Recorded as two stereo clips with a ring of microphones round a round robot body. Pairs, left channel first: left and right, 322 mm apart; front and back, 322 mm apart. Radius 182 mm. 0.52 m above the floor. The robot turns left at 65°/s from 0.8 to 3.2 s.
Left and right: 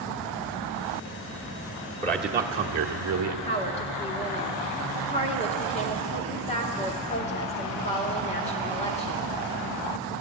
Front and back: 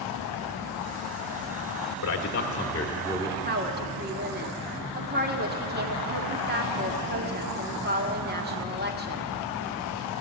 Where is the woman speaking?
145° left, 1.6 m.